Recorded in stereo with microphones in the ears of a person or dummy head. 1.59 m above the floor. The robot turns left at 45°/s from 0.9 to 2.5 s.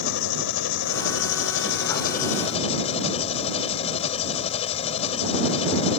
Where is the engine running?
110° left; by 6.0 s 40° left.